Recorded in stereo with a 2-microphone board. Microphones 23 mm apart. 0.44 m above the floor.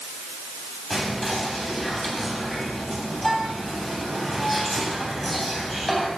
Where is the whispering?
10° left (ahead or behind), 3 m.